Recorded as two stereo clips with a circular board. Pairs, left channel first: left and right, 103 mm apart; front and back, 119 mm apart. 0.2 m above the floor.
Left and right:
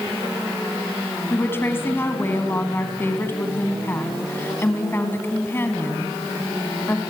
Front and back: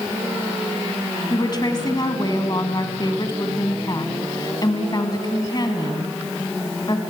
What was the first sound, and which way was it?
A woman speaking, 35° left.